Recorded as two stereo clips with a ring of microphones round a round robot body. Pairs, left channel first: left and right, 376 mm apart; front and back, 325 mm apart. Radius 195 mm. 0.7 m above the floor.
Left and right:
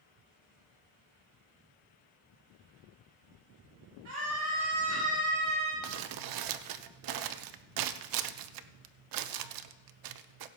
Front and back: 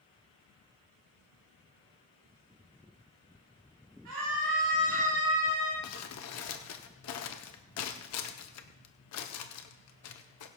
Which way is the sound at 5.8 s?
50° right.